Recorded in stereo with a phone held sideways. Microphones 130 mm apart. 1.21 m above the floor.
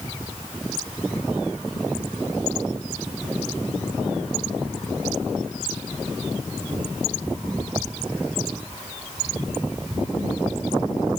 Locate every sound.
Only background noise.